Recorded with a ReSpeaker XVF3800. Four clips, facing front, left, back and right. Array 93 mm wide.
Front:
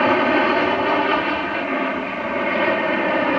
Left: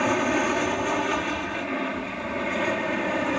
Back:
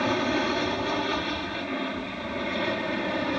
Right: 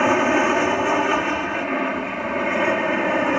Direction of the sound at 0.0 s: 35° right.